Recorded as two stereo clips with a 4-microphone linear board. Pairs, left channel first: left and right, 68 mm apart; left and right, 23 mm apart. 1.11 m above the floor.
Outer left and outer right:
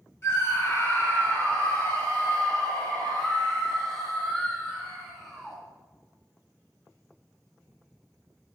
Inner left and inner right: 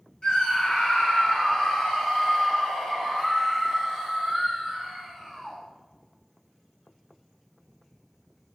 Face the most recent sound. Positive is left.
turn(degrees=0)  # may be behind; listen again after turning